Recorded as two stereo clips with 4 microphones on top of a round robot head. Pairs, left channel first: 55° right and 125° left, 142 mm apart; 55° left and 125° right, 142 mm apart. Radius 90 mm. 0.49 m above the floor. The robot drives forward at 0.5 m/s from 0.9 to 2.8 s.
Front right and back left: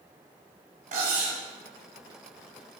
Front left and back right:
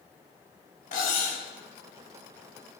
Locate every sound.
0.9 s cutlery clinking: 95° left, 2 m; by 1.4 s 100° left, 2 m